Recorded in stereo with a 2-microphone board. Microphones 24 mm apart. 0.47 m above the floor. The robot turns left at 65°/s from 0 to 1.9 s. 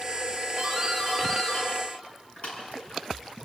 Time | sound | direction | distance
0.6 | a doorbell | 25° right (ahead or behind) | 7.5 m